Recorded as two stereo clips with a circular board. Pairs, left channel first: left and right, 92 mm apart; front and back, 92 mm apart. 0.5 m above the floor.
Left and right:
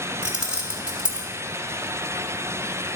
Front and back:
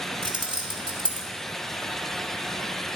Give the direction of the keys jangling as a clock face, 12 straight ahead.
6 o'clock.